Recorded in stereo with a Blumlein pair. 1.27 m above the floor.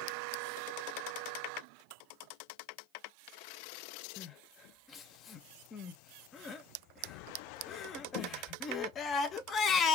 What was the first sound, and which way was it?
Crying, 25° left.